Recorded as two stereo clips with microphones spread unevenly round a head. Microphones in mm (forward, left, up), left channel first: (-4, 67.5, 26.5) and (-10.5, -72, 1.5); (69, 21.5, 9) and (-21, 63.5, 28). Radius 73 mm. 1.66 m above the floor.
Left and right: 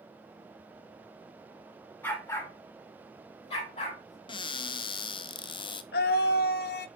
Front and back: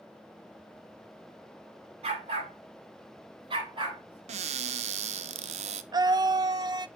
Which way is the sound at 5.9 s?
105° left.